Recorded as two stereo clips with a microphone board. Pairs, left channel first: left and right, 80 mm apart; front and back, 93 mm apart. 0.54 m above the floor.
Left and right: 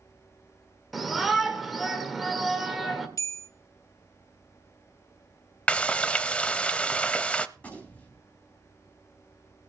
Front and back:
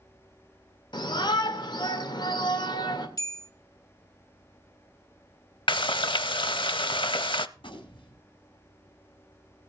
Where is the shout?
Straight ahead, 2 m.